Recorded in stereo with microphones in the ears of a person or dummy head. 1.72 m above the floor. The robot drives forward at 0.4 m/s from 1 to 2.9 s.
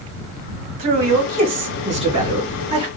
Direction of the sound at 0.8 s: 40° right (ahead or behind).